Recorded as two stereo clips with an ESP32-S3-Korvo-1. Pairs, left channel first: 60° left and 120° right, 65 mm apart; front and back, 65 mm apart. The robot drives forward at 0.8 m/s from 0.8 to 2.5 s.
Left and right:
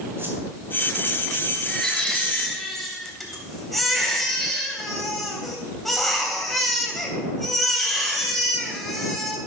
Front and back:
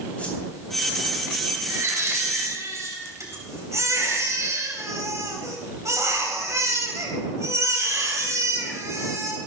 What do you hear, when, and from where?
0.2 s a whoosh: 70° right, 3 m
1.7 s a baby crying: 140° left, 2.5 m; by 9.4 s 150° left, 3 m